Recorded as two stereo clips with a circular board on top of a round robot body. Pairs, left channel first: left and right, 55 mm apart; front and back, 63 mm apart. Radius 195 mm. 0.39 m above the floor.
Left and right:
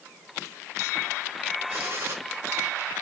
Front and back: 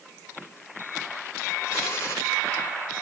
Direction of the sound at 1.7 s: 50° right.